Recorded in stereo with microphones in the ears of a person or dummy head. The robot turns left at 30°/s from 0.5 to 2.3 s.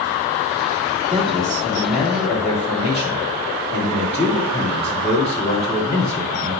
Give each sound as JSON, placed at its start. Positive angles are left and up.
{"t": 1.1, "sound": "a man speaking", "azimuth_deg": -175, "distance_m": 2.5}